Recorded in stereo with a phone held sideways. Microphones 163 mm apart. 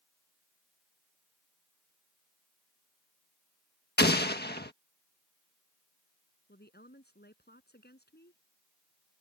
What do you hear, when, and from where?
4.0 s an explosion: 85° left
6.5 s a woman speaking: 85° left